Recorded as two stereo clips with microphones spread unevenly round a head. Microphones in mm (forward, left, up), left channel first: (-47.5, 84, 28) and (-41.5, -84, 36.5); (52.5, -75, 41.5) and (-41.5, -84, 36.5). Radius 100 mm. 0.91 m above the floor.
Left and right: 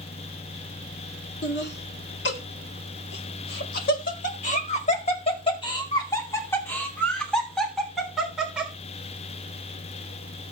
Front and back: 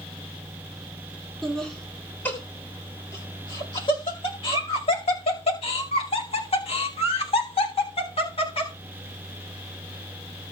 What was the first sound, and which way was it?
Laughter, 95° left.